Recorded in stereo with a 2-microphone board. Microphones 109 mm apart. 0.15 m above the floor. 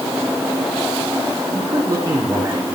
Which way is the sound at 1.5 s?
30° right (ahead or behind).